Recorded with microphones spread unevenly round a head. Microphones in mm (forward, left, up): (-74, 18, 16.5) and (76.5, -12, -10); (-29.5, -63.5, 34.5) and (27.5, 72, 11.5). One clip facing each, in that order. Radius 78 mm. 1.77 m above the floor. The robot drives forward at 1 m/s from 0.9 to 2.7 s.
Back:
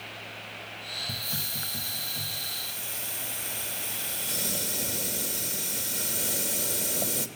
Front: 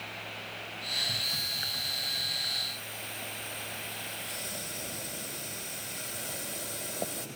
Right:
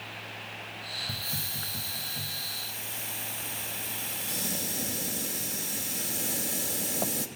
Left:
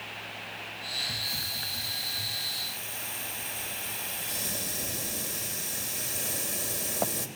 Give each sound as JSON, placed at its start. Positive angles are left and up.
{"t": 1.1, "sound": "a hiss", "azimuth_deg": -145, "distance_m": 1.4}